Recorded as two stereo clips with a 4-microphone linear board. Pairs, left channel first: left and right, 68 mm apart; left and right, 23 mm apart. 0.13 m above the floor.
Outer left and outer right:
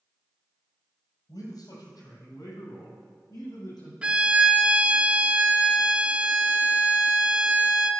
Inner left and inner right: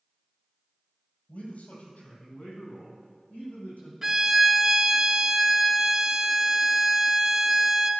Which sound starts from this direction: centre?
A violin, at 4.0 s.